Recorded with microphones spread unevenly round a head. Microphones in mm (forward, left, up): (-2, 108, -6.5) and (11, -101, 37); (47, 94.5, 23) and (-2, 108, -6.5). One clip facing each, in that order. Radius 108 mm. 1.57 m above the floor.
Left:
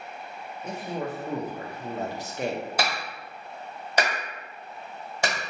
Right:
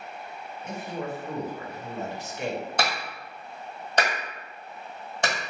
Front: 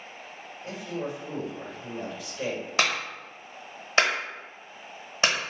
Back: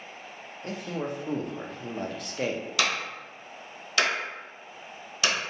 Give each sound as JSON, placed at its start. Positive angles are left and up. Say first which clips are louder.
{"t": 0.6, "sound": "a man speaking", "louder": "left 1 dB, back 1 dB", "azimuth_deg": 150, "distance_m": 0.6}
{"t": 2.8, "sound": "a clap", "louder": "even, front 3 dB", "azimuth_deg": 5, "distance_m": 1.1}